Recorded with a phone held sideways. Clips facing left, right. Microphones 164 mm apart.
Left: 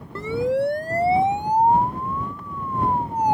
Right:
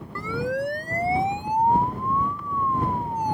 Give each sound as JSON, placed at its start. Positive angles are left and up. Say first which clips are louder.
{"t": 0.1, "sound": "a siren", "louder": "left 5 dB", "side_deg": 25}